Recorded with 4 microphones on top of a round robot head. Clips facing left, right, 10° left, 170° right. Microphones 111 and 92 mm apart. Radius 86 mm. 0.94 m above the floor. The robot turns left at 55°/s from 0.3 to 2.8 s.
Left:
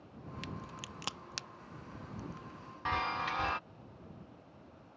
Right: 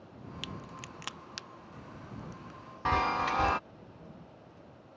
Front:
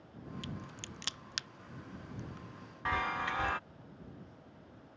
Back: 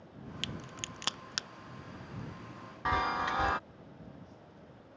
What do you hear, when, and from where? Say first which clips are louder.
0.4 s a crack: right 1 dB, back 2 dB; 170° right; by 1.5 s 135° left
2.9 s a chime: right 6 dB, back 4 dB; 110° right